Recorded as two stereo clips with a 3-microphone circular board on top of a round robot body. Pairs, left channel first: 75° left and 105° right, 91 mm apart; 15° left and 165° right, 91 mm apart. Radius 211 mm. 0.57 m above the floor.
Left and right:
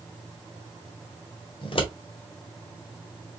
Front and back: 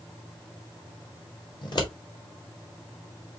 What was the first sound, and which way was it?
Scissors, 55° left.